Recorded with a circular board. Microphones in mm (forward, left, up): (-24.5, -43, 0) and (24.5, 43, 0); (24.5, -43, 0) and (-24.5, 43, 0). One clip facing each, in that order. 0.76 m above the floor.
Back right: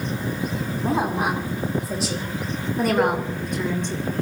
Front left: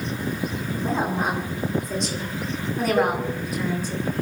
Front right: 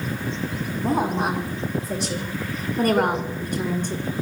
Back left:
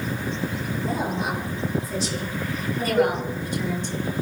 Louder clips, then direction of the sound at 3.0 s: Even, back left 1 dB; 25° left.